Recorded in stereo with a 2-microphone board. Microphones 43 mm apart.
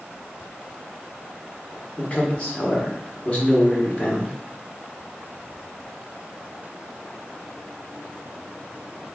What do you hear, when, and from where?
2.0 s a man speaking: 30° left (ahead or behind), 1.4 m